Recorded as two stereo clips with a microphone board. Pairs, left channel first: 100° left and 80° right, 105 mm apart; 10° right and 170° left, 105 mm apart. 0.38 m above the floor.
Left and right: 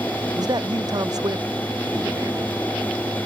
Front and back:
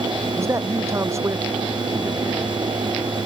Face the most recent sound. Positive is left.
turn(degrees=-130)